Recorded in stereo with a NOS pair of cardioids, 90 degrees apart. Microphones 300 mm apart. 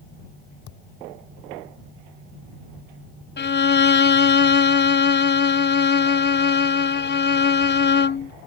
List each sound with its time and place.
0.7 s a thud: 70° left
3.4 s a violin: 35° left